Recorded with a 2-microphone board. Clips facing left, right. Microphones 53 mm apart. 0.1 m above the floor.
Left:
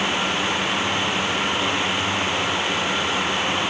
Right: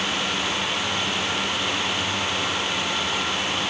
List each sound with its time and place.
Only background noise.